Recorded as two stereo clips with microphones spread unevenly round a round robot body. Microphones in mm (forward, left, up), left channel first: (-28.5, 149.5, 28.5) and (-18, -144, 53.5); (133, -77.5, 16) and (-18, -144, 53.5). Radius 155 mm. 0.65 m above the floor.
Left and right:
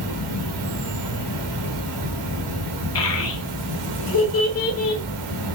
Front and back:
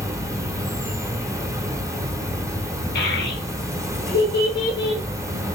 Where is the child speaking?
50° left, 1.1 m.